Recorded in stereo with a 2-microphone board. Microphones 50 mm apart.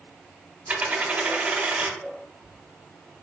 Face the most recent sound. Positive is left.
turn(degrees=-35)  # may be behind; listen again after turning